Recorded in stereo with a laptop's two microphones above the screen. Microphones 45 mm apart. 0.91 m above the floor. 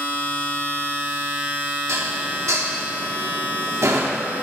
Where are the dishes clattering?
85° right, 1.3 m.